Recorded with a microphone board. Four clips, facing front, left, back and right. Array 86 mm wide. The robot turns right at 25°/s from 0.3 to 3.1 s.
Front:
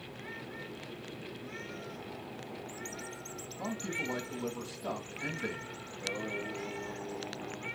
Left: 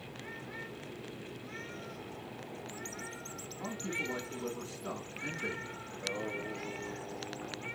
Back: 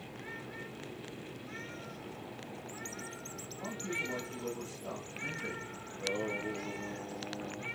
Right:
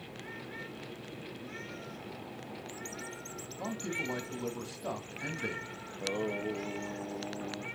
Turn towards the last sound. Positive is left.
turn(degrees=-110)